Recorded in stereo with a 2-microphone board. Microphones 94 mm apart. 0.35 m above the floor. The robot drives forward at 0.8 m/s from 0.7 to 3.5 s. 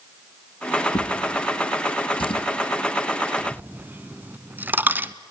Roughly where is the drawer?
Left.